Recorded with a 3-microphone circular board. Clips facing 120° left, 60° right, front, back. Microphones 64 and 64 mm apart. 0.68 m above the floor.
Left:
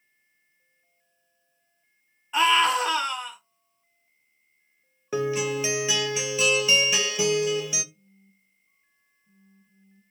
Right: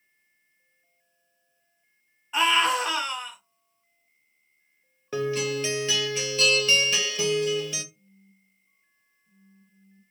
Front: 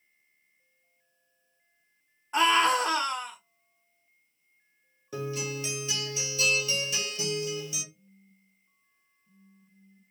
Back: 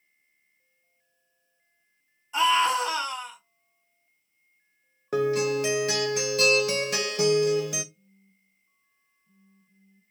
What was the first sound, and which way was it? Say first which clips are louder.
A scream: left 2 dB, back 1 dB; 30° left.